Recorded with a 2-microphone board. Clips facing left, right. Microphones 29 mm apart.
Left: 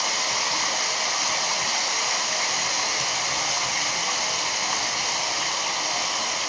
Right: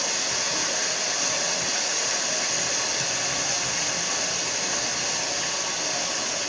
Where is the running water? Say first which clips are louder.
Left 3 dB; 45° left (ahead or behind), 3.5 m.